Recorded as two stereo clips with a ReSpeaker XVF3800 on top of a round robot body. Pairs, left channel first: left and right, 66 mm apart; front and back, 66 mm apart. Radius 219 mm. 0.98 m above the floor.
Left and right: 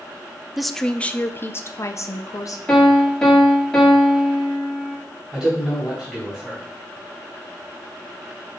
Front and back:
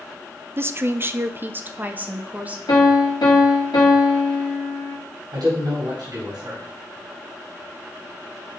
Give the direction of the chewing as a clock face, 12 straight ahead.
No chewing in this recording.